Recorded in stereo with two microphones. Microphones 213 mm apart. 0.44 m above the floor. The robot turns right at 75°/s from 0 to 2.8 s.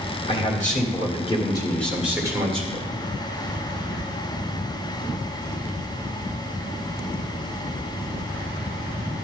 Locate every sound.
0.3 s a man speaking: 55° left, 1.6 m; by 3.0 s 115° right, 1.6 m